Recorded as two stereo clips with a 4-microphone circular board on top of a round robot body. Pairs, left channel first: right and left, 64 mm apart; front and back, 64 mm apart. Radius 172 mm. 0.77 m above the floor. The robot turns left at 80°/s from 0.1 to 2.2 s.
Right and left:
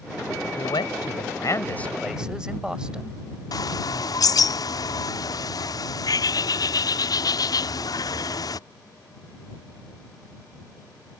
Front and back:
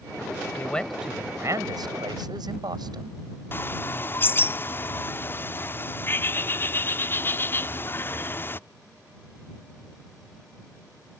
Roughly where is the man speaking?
Ahead right.